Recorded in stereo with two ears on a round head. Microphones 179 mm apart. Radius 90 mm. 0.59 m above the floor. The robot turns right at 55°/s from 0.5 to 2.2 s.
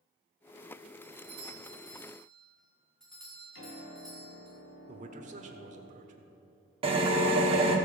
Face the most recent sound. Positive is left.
turn(degrees=-30)  # may be behind; listen again after turning